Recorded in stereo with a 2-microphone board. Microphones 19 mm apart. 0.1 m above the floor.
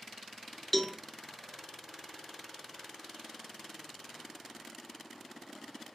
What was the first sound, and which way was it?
A cowbell, 10° left (ahead or behind).